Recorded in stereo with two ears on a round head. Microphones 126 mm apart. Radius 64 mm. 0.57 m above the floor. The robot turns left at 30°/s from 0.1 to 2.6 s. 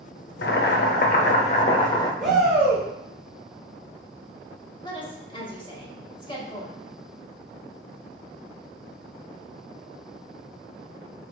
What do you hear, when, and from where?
0.4 s boiling: 75° left, 0.6 m; by 2.1 s 25° left, 0.6 m
2.2 s a shout: centre (ahead or behind), 1.8 m; by 2.9 s 10° right (ahead or behind), 1.8 m
4.8 s a woman speaking: 35° left (ahead or behind), 1.1 m